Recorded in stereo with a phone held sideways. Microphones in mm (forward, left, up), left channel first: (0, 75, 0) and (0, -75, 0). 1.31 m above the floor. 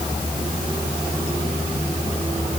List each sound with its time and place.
Only background noise.